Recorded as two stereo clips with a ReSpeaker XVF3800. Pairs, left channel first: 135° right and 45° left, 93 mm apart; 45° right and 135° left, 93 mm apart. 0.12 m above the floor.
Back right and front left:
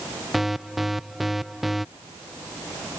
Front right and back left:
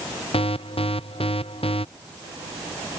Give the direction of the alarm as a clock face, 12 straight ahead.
1 o'clock.